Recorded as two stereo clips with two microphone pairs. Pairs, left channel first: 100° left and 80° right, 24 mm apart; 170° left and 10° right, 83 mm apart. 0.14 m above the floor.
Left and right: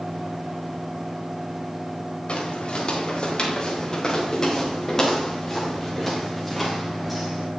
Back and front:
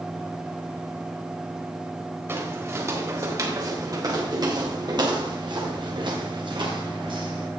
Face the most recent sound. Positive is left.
turn(degrees=5)